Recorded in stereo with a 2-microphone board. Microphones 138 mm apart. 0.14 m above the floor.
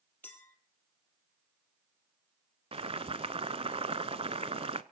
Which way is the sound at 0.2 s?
10° left (ahead or behind).